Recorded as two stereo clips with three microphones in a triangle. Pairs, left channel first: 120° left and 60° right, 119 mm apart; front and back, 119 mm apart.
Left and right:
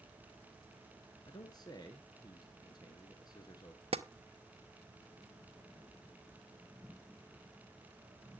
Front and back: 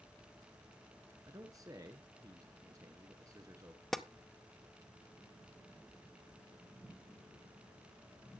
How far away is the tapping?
About 0.7 m.